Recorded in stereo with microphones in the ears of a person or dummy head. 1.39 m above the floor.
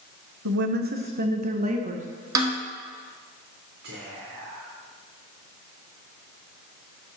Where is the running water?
I don't hear running water.